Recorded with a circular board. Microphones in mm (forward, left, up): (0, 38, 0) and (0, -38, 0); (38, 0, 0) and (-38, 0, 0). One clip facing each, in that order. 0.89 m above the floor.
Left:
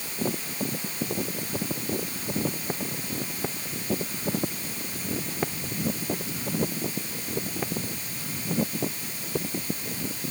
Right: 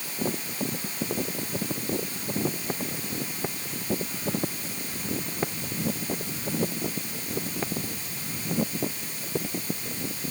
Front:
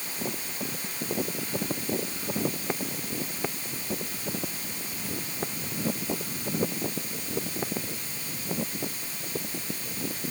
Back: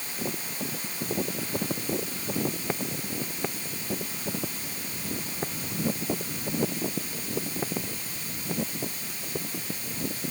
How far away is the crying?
No crying in this recording.